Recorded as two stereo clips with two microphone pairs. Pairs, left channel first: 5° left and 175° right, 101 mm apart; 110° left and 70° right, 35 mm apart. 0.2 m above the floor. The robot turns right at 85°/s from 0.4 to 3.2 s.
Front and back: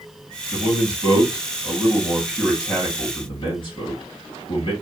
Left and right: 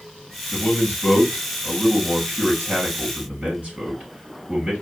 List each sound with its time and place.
0.5 s a man speaking: 115° left, 4 m; by 4.7 s 15° right, 4 m